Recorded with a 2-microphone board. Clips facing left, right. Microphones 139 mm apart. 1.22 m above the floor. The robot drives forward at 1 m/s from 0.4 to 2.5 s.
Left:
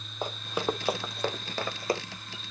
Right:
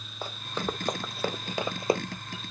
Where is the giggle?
I don't hear a giggle.